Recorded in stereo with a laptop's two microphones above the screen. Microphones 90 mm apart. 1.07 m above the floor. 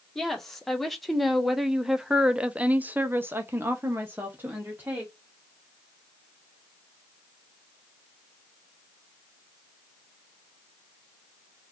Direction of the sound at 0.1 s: Centre (ahead or behind).